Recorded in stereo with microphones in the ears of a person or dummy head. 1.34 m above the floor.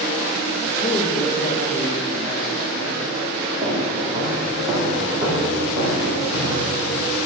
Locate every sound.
0.8 s a man speaking: 35° left (ahead or behind), 1.0 m
3.6 s footsteps: 15° right (ahead or behind), 3.5 m; by 6.7 s 20° right (ahead or behind), 5.5 m